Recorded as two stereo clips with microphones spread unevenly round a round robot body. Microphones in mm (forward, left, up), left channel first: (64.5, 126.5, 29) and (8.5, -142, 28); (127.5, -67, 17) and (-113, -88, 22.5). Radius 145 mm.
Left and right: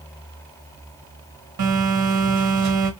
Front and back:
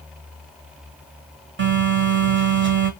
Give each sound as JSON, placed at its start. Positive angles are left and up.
{"t": 1.6, "sound": "a phone buzzing", "azimuth_deg": -135, "distance_m": 1.3}